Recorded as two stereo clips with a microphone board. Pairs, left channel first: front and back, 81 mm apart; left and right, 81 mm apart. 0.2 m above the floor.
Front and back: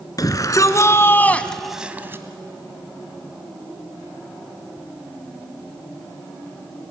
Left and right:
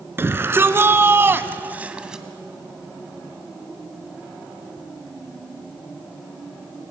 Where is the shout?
35° right, 2.5 m; by 2.2 s 170° right, 1.4 m.